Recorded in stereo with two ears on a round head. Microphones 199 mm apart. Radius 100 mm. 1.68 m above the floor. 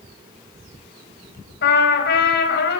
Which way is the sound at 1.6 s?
50° left (ahead or behind).